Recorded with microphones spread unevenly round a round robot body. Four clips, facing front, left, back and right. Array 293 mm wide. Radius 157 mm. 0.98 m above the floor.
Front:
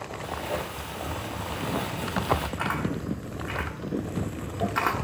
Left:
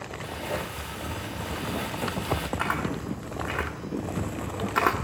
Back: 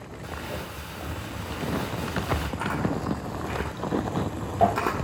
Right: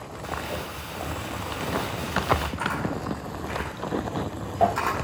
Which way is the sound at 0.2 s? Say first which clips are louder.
Right 1 dB, front 4 dB; straight behind.